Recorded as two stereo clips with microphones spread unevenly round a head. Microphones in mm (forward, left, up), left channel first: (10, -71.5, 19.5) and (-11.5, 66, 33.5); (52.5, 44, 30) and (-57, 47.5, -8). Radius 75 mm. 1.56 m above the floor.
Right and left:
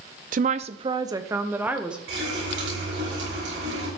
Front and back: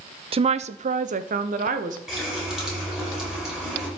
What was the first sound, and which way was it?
A woman speaking, 135° left.